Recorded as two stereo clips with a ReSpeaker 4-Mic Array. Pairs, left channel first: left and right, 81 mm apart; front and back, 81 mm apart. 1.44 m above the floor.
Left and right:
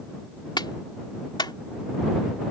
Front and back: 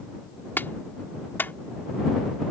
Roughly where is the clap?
Ahead left.